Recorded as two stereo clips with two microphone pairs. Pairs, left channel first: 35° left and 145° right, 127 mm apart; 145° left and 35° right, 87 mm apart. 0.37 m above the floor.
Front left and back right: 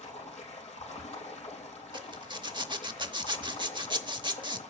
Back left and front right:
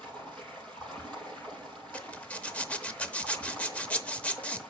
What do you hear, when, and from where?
0.0 s running water: 65° left, 3.5 m
1.9 s a zipper: 150° right, 0.7 m